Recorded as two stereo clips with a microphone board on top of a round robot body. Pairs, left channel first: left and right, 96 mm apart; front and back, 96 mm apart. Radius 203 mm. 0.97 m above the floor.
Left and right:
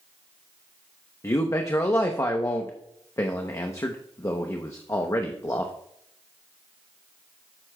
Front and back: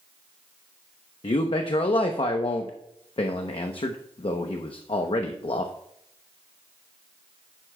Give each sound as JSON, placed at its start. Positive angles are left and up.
{"t": 1.2, "sound": "a man speaking", "azimuth_deg": 30, "distance_m": 0.8}